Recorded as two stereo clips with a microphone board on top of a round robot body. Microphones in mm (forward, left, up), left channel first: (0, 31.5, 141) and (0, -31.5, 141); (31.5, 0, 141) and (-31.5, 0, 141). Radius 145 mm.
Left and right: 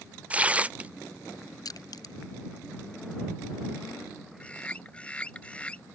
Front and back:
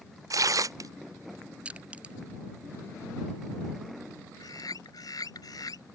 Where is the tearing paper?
160° right.